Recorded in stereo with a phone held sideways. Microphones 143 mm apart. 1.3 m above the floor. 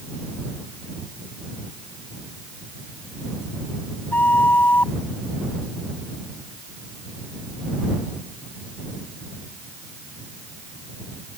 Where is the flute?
15° left (ahead or behind).